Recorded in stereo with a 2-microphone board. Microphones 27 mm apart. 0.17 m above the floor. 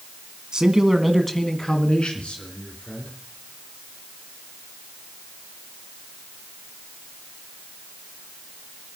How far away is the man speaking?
About 1.7 m.